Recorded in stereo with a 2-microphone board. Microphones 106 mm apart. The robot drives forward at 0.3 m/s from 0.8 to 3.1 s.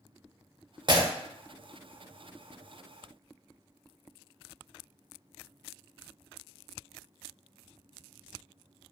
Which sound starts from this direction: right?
Breaking glass, at 0.9 s.